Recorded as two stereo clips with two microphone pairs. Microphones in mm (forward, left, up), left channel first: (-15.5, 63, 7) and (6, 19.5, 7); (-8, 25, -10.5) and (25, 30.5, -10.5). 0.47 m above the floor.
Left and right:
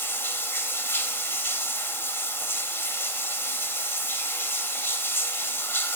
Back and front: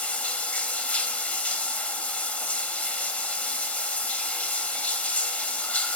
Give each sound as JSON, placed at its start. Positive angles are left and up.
{"t": 0.0, "sound": "running water", "azimuth_deg": 145, "distance_m": 0.9}